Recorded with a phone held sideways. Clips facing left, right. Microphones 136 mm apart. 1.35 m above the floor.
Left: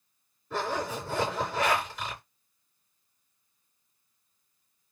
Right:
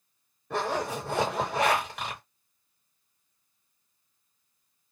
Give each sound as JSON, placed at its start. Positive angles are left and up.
{"t": 0.5, "sound": "a zipper", "side_deg": -75, "distance_m": 1.4}